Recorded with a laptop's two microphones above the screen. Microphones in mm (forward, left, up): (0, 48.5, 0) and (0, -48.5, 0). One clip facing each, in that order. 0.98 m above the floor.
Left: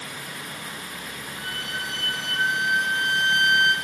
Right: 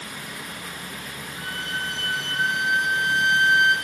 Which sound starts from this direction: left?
A violin, at 1.4 s.